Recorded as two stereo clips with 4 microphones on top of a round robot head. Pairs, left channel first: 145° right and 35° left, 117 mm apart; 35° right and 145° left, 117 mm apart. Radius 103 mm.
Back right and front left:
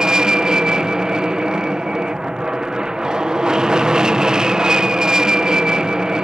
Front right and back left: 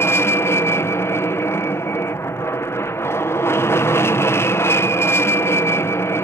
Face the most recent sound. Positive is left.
turn(degrees=-40)